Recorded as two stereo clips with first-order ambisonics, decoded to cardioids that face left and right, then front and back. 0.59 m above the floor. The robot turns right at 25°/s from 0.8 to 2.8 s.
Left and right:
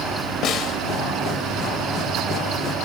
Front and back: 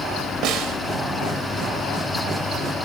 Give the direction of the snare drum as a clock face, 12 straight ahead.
7 o'clock.